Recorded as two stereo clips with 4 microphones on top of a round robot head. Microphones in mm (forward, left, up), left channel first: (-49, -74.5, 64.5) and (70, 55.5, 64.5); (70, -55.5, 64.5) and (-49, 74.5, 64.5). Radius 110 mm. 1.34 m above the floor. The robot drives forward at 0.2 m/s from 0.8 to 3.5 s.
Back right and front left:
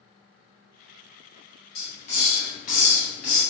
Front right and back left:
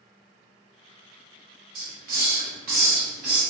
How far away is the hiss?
About 0.8 m.